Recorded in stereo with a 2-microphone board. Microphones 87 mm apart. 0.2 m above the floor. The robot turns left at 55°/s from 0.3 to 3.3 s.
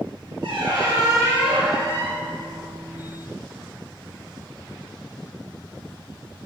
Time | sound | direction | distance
0.4 | a squeak | 105° right | 1.5 m